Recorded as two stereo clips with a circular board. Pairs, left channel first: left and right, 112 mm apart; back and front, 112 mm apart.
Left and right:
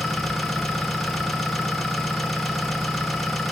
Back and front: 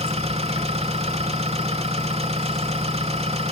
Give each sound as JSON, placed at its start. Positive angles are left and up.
{"t": 0.0, "sound": "an engine running", "azimuth_deg": 0, "distance_m": 2.0}